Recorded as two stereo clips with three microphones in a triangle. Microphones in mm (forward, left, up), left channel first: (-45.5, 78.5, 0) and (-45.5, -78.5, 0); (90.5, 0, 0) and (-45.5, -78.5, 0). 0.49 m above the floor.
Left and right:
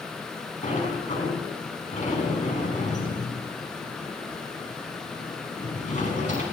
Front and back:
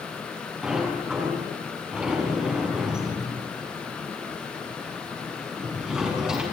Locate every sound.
0.6 s a sliding door: 125° left, 5.5 m